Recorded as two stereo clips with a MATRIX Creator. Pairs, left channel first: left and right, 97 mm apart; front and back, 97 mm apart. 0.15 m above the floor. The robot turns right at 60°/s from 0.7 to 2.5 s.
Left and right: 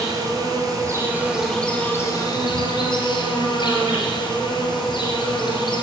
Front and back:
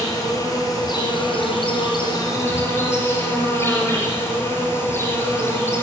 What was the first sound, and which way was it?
An insect, 45° right.